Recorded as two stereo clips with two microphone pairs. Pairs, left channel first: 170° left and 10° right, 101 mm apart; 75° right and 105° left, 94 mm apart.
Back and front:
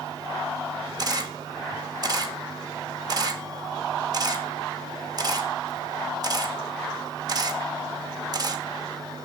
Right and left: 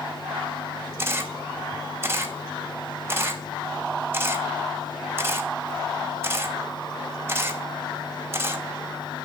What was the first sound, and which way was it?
A camera shutter, 40° left.